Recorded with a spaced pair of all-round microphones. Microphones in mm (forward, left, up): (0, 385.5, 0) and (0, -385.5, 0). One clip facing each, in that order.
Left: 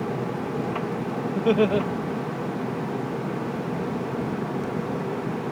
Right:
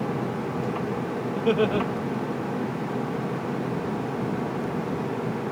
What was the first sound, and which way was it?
Laughter, 50° left (ahead or behind).